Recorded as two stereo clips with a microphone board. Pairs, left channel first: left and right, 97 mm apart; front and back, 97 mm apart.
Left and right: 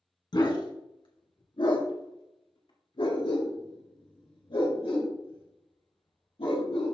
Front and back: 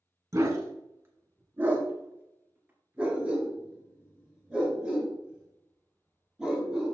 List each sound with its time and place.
0.3 s a dog barking: 125° left, 1.6 m; by 7.0 s 95° left, 5 m